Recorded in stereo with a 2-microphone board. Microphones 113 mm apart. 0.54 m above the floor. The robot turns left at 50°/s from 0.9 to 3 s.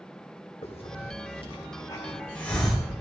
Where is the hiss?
65° left (ahead or behind), 3 m; by 2.9 s 5° right (ahead or behind), 3 m.